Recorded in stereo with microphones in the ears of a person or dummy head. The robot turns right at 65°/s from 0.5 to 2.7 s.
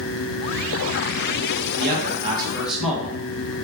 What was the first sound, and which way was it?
A man speaking, 65° right.